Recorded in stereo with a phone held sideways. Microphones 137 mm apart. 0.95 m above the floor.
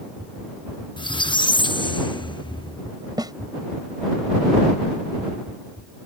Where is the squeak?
35° left (ahead or behind).